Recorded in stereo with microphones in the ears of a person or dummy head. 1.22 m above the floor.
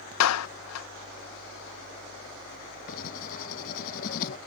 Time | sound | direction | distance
0.2 | a clap | 85° left | ?
2.9 | writing | 50° left (ahead or behind) | ?